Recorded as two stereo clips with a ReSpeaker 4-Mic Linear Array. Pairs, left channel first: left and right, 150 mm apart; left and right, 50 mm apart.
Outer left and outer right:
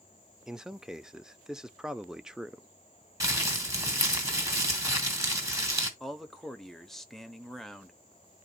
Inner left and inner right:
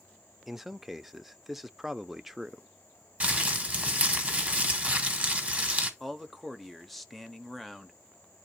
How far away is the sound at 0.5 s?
About 0.5 m.